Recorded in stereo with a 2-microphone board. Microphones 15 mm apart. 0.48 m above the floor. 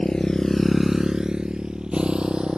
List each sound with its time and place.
0.0 s a motorcycle: 65° left (ahead or behind); by 2.6 s 70° right (ahead or behind)